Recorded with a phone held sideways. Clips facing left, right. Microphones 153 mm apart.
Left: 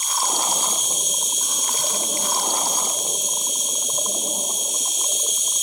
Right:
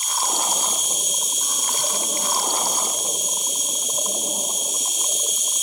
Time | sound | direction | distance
0.0 | an insect | 5° right (ahead or behind) | 6.5 m